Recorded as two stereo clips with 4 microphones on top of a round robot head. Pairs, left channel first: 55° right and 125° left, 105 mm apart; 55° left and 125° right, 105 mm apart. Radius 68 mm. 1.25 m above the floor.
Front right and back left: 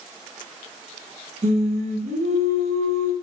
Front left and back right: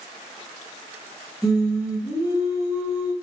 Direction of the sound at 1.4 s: 150° left.